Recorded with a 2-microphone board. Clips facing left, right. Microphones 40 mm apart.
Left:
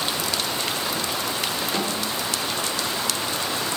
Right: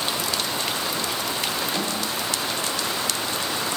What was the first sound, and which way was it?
A snare drum, 40° left (ahead or behind).